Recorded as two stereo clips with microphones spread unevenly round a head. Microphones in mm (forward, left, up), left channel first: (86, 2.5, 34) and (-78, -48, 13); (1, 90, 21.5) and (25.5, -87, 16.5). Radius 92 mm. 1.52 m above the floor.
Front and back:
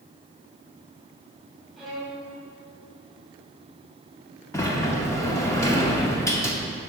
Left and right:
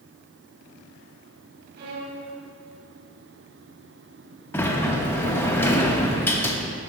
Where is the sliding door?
40° left, 0.8 m.